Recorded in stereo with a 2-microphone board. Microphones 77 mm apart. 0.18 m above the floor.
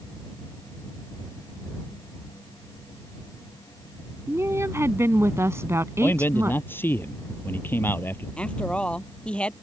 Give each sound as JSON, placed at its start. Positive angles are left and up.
{"t": 4.3, "sound": "a woman speaking", "side_deg": -40}
{"t": 6.0, "sound": "a man speaking", "side_deg": 25}
{"t": 8.4, "sound": "a woman speaking", "side_deg": 15}